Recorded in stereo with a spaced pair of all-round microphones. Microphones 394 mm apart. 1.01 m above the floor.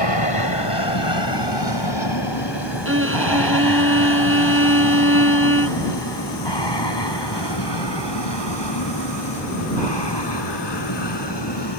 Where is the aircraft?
75° left (ahead or behind); by 11.8 s 80° left.